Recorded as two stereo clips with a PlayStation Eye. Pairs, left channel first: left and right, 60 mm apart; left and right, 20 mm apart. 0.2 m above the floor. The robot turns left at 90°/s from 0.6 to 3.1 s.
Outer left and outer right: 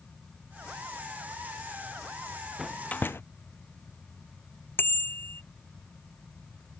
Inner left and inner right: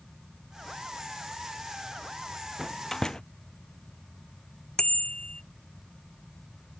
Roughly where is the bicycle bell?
Left.